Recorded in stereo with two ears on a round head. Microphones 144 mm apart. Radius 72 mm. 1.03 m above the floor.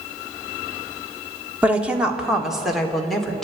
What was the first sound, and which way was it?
A woman speaking, 10° right (ahead or behind).